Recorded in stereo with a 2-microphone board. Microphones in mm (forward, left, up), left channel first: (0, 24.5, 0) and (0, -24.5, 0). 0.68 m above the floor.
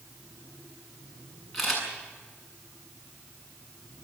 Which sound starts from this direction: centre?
A camera shutter, at 1.5 s.